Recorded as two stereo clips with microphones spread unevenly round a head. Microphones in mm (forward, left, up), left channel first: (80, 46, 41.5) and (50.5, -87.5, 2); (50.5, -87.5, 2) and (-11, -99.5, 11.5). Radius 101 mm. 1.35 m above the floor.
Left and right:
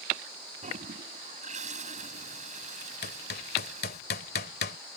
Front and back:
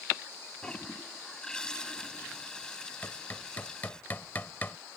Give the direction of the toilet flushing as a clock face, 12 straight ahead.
2 o'clock.